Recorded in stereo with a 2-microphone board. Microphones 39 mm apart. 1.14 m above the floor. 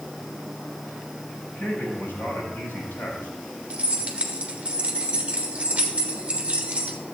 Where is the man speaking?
85° left, 6 m.